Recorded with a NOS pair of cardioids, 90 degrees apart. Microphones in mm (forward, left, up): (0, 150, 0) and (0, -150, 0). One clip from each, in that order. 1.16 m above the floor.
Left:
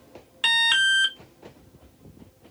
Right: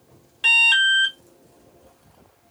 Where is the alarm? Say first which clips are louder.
Right 4 dB; 35° left, 0.9 m.